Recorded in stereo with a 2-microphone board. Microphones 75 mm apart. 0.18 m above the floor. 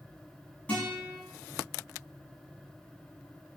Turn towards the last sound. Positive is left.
turn(degrees=20)  # may be behind; listen again after turning